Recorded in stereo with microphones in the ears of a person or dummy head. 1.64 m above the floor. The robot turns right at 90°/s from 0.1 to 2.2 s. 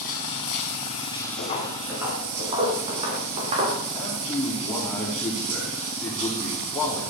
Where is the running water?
55° left, 3.5 m; by 7.1 s 115° right, 3.5 m.